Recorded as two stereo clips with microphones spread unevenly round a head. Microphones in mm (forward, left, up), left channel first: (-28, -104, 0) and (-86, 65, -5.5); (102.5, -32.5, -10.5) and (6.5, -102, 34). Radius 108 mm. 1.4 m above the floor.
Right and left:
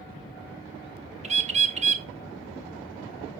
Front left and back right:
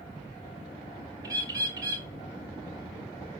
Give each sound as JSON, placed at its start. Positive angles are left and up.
{"t": 1.2, "sound": "a bird", "azimuth_deg": 160, "distance_m": 1.0}